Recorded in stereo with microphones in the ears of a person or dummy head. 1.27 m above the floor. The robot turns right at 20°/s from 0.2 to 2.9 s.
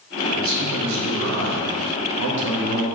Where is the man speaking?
105° right, 1.7 m; by 2.9 s 55° right, 1.7 m.